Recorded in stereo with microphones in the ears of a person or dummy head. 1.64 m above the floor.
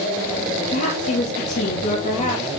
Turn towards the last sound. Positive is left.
turn(degrees=40)  # may be behind; listen again after turning